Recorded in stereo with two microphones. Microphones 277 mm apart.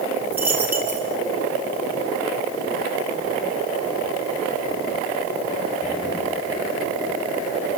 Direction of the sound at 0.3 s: 5° right (ahead or behind).